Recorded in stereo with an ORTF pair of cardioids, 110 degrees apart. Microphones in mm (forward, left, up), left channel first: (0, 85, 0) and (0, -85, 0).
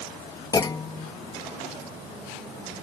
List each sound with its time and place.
0.5 s a clunk: 25° left